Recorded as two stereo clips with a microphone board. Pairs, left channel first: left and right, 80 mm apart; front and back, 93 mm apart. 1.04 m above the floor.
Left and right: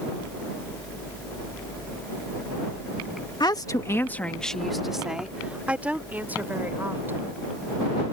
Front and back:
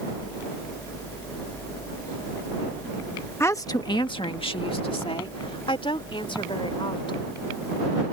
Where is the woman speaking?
60° left; by 7.2 s 25° right.